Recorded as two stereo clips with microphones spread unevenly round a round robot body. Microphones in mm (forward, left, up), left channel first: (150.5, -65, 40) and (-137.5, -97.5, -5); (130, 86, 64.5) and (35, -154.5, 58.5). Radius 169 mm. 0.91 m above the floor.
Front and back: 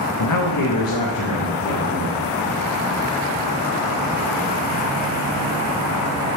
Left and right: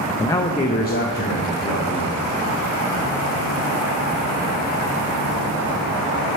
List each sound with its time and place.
0.2 s a man speaking: 20° right, 0.6 m; by 2.3 s 35° left, 1.7 m